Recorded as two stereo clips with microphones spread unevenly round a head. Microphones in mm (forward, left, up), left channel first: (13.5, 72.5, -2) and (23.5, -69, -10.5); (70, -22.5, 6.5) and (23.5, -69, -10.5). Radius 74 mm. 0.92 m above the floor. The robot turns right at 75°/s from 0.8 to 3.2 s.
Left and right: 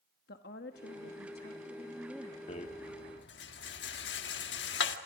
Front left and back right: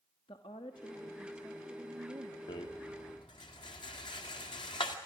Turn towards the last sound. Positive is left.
turn(degrees=100)